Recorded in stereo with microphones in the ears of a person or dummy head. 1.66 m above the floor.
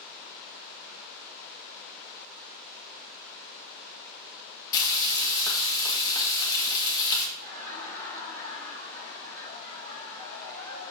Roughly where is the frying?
Left.